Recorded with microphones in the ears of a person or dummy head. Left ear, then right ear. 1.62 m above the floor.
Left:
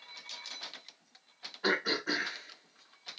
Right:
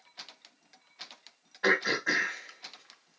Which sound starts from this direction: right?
Throat clearing, at 1.6 s.